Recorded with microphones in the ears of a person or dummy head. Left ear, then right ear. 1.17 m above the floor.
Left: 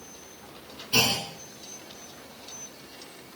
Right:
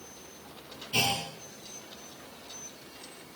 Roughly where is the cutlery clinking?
I don't hear cutlery clinking.